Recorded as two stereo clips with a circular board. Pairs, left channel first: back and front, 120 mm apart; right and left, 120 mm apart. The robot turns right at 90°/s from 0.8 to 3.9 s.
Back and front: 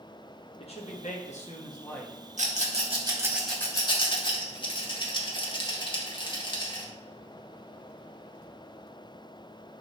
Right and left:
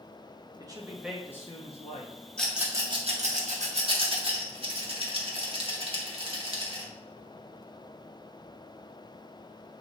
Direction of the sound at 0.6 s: 150° left.